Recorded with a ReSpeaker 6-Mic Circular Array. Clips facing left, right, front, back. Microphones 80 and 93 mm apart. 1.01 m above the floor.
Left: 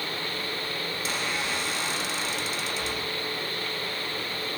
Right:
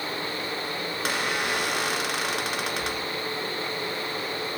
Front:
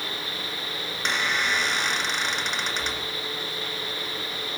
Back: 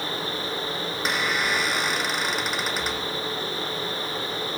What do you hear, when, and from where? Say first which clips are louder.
0.9 s a squeak: right 4 dB, even; 95° right, 2.5 m